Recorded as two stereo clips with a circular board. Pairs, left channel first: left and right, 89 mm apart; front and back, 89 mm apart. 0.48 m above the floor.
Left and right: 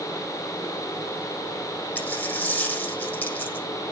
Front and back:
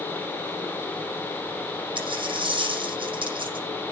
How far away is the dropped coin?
About 7.5 m.